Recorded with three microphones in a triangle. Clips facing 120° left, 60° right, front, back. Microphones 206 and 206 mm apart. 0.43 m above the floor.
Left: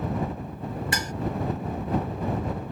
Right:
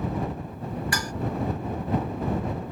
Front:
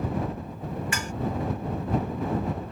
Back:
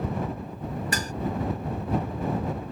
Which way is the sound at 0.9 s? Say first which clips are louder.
Even, back 2 dB; 170° left.